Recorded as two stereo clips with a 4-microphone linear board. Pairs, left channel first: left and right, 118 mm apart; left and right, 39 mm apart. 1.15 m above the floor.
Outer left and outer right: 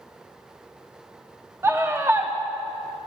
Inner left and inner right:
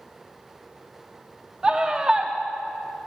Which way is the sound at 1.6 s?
20° right (ahead or behind).